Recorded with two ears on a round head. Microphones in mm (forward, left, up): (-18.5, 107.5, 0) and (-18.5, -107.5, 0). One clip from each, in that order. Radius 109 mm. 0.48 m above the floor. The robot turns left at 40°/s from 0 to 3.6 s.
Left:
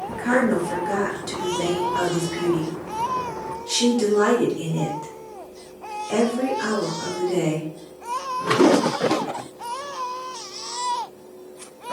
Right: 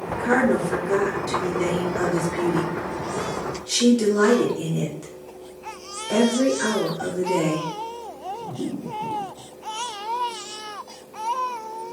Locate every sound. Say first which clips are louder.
0.1 s a woman speaking: right 1 dB; 20° left (ahead or behind), 1.1 m; by 7.7 s 10° right (ahead or behind), 1.1 m